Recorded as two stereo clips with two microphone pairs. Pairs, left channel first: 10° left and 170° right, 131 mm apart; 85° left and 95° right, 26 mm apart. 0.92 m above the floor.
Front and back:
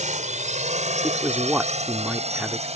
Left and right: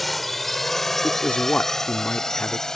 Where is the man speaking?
115° left.